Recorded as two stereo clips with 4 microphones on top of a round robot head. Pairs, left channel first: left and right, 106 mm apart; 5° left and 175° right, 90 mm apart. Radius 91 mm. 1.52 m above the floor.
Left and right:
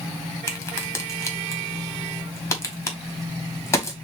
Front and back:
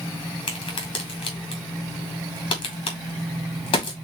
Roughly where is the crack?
Ahead left.